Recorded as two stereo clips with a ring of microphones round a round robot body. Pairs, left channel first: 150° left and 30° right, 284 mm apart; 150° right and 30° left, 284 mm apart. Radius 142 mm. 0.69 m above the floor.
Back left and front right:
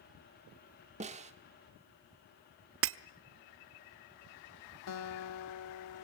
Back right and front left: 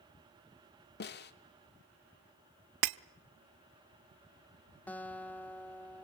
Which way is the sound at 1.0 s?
95° right.